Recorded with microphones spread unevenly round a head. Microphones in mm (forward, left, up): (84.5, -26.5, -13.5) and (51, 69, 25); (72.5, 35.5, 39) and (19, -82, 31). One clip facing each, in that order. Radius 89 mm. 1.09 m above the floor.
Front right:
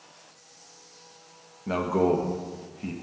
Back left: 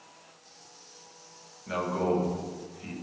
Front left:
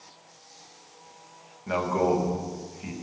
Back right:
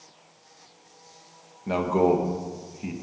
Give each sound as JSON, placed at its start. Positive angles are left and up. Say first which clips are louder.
{"t": 1.7, "sound": "a man speaking", "louder": "front right 5 dB, back right 3 dB", "azimuth_deg": -60, "distance_m": 1.5}